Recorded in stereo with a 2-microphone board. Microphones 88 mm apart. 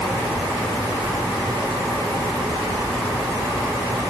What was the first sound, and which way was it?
Only background noise.